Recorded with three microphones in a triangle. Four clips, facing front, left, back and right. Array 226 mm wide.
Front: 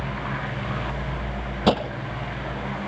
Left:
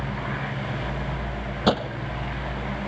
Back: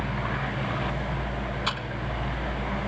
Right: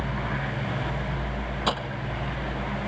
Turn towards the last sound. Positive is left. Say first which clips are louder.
# left 7 dB, front 11 dB
turn(degrees=35)